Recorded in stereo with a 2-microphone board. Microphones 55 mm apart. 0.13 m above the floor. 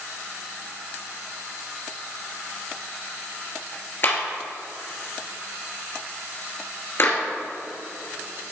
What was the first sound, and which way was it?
A clap, 45° left (ahead or behind).